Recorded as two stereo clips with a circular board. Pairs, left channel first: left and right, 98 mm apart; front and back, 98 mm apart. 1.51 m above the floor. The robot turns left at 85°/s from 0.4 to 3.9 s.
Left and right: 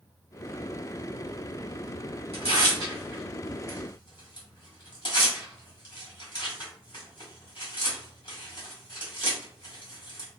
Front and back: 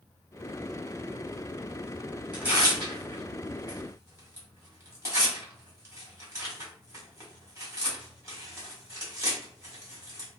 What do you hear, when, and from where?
2.3 s tearing paper: 105° right, 1.4 m; by 10.3 s 125° left, 1.4 m